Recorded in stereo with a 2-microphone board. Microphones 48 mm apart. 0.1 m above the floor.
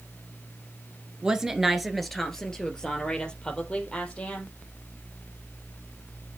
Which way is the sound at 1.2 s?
15° right (ahead or behind).